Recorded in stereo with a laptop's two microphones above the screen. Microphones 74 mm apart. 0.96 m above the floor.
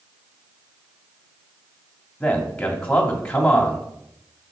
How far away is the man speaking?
About 2 m.